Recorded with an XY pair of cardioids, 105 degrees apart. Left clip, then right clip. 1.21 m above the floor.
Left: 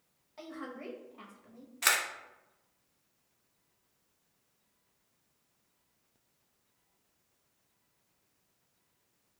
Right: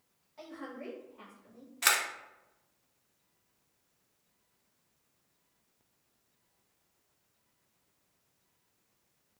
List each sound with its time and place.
0.4 s a woman speaking: 40° left, 1.2 m
1.8 s a camera shutter: 5° right, 0.6 m